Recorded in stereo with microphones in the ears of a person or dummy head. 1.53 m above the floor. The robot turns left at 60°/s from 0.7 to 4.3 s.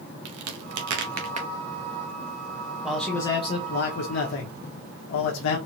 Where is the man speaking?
170° right, 1.2 m; by 5.6 s 100° left, 1.2 m.